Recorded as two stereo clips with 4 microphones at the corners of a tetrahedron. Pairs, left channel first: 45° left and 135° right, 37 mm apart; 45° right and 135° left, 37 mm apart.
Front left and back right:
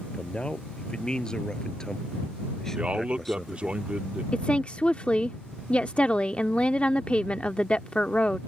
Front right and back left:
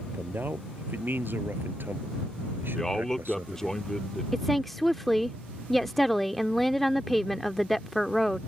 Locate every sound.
0.1 s a man speaking: 110° left; by 3.8 s 130° left
2.8 s a man speaking: 115° right
4.3 s a woman speaking: 40° left